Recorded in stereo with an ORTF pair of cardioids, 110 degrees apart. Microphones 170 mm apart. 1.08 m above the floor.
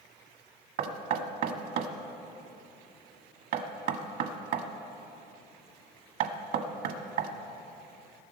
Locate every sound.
0.8 s knocking: 70° right, 1.4 m